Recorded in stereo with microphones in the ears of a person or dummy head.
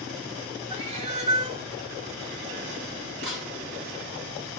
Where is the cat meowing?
20° right (ahead or behind), 0.7 m.